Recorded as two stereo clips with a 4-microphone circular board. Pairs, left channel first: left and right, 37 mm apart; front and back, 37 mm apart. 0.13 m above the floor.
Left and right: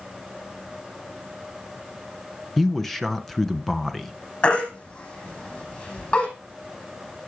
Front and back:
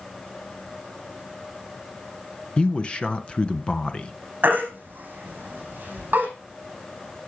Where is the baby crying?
145° left, 5 m.